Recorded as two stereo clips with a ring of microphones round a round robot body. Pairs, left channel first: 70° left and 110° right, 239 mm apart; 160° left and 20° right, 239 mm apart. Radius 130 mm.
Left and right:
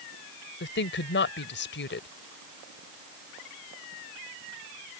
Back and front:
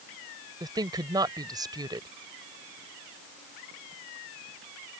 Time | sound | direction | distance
0.6 | a woman speaking | 45° left | ?